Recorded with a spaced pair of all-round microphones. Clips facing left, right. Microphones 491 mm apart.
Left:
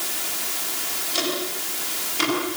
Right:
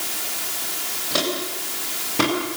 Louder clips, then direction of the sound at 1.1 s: Right 2 dB; 80° right.